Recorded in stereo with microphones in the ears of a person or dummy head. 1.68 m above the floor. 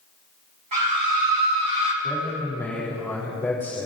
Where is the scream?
45° right (ahead or behind), 4.5 m; by 1.9 s 65° right (ahead or behind), 3.5 m.